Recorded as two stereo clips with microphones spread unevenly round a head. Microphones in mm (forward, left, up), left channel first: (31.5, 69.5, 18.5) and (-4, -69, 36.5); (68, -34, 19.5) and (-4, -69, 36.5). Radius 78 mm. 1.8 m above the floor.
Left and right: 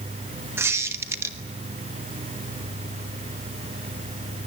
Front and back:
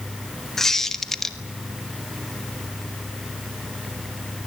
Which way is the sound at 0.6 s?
85° right.